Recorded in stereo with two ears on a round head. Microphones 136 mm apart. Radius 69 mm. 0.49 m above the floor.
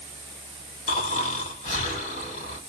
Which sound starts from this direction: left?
Snoring, at 0.9 s.